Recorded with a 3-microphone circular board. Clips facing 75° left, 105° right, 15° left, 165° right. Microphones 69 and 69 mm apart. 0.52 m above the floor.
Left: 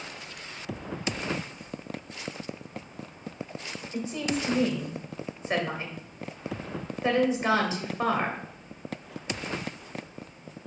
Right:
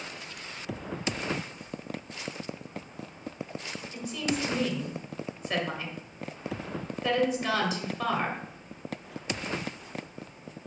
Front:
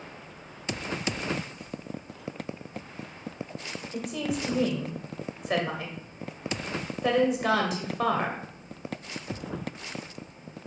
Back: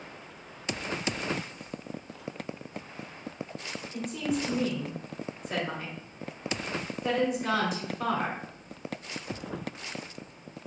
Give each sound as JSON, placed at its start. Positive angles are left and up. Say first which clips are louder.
{"t": 3.9, "sound": "a woman speaking", "louder": "left 2 dB, even", "azimuth_deg": 15, "distance_m": 1.9}